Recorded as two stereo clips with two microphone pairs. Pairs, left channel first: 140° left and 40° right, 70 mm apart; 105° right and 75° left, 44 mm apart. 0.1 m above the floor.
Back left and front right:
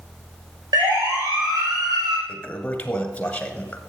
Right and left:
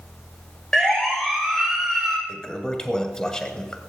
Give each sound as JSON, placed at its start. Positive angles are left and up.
{"t": 0.7, "sound": "a siren", "azimuth_deg": -30, "distance_m": 7.0}
{"t": 2.3, "sound": "a toilet flushing", "azimuth_deg": -165, "distance_m": 1.5}